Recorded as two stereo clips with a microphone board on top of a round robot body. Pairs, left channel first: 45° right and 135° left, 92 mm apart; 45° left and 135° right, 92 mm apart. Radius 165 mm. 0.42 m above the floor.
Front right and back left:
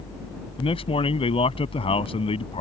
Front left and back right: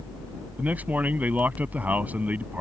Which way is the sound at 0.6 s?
60° right.